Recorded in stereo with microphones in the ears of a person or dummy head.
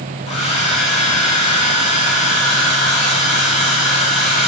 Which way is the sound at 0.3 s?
40° left (ahead or behind).